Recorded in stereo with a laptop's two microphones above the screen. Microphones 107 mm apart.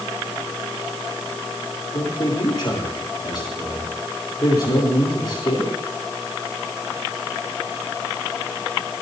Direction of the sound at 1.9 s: 45° left (ahead or behind).